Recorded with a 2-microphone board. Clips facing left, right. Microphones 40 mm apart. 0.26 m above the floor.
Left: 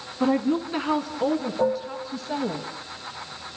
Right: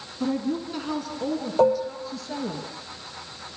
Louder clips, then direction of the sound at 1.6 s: Right 7 dB; 75° right (ahead or behind).